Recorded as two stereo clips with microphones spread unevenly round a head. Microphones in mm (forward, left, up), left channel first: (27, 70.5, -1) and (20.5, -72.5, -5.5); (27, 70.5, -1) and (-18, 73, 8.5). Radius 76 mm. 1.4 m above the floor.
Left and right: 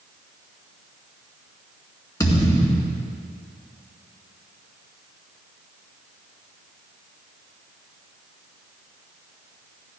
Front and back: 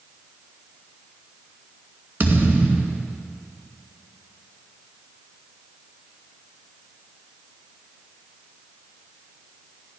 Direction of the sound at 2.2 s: 155° left.